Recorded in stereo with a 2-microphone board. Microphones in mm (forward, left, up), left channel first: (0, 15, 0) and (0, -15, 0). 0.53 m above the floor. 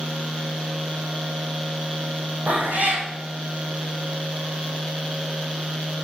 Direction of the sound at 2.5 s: 65° right (ahead or behind).